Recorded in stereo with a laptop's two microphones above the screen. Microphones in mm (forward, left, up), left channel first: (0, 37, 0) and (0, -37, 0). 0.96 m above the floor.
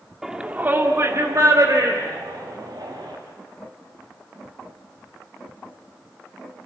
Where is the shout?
5° right (ahead or behind), 1.8 m; by 3.1 s 75° right (ahead or behind), 5 m.